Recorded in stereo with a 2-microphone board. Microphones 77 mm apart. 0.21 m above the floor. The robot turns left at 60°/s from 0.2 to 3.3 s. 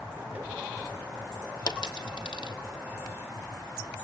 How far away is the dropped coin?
About 1.6 m.